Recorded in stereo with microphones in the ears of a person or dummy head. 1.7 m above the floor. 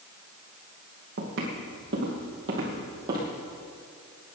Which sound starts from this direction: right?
Footsteps, at 1.2 s.